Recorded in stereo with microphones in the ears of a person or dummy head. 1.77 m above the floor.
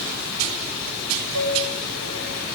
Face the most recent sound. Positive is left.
turn(degrees=-85)